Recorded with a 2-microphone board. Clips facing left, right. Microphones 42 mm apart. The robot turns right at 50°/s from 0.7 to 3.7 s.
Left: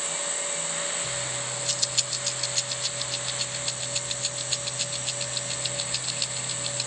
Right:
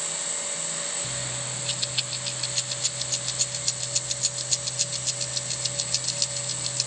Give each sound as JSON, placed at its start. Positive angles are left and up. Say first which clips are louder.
{"t": 1.0, "sound": "keys jangling", "louder": "left 2 dB", "side_deg": -30, "distance_m": 0.7}